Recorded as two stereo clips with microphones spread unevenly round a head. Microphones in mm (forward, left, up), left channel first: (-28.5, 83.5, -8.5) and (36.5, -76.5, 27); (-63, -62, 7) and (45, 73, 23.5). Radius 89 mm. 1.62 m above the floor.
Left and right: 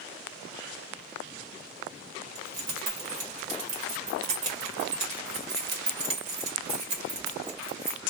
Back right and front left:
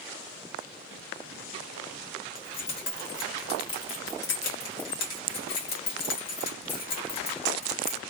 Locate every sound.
2.4 s keys jangling: 95° right, 1.3 m